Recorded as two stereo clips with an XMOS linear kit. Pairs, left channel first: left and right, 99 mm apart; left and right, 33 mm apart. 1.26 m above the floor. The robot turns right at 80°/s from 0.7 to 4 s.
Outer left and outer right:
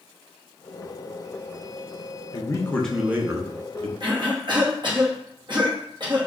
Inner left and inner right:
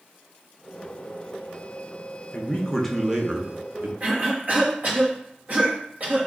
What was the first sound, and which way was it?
A man speaking, 130° left.